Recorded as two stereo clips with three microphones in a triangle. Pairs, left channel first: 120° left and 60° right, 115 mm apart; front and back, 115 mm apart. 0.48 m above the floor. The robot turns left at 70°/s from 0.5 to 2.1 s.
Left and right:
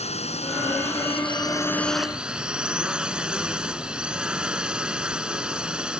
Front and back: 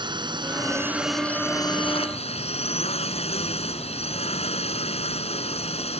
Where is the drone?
135° left; by 6.0 s 20° left.